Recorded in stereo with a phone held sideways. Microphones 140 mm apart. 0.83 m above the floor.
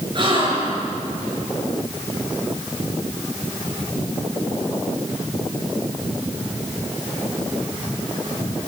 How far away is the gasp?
About 5.5 m.